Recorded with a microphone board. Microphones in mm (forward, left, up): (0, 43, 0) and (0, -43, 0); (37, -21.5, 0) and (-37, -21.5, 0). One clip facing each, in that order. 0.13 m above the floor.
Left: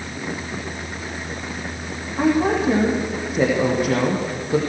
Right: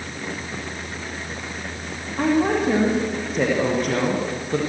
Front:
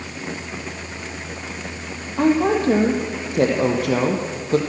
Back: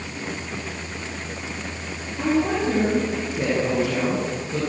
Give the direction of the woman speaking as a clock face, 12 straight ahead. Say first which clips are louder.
Left 1 dB, front 4 dB; 12 o'clock.